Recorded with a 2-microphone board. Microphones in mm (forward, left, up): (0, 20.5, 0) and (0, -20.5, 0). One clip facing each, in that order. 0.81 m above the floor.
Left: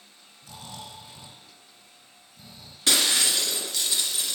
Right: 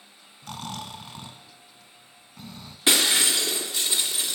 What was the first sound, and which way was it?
Snoring, 55° right (ahead or behind).